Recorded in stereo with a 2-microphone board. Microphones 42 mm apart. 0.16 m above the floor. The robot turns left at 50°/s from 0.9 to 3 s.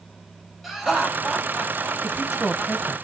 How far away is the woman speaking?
About 1.0 m.